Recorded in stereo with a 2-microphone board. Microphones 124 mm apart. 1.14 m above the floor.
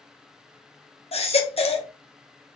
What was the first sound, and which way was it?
A baby crying, 55° left (ahead or behind).